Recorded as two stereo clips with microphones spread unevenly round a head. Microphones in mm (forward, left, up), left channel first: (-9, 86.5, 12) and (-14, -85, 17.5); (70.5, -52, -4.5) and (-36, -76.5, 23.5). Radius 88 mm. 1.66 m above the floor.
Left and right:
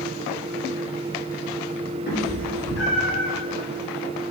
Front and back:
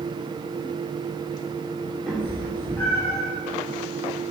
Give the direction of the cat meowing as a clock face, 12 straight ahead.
8 o'clock.